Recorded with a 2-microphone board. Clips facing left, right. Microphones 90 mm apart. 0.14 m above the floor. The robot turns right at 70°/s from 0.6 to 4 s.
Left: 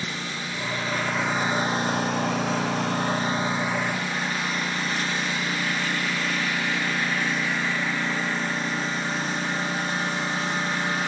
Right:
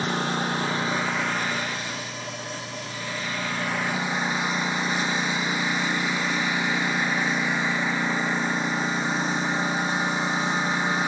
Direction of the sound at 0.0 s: 45° right.